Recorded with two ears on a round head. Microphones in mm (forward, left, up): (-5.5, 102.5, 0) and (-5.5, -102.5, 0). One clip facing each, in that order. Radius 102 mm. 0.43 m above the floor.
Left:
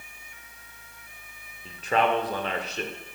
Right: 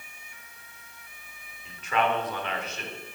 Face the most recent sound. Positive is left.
turn(degrees=30)  # may be behind; listen again after turning